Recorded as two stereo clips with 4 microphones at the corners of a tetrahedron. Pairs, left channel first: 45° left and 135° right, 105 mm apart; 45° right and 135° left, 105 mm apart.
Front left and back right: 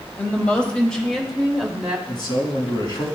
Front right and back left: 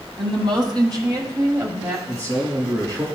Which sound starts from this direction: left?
A man speaking, at 2.1 s.